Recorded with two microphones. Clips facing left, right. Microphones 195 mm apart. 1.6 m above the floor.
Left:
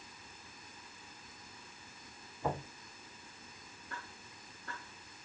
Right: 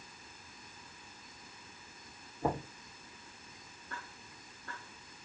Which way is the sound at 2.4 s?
40° right (ahead or behind).